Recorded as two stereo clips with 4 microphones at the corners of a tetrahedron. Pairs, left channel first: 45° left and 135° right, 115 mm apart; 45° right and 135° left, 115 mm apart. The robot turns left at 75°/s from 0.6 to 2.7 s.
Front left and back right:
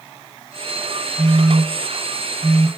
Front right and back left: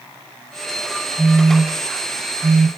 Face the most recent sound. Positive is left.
turn(degrees=160)